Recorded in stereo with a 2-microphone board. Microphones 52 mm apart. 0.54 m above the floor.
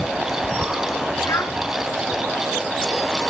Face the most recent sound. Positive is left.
turn(degrees=85)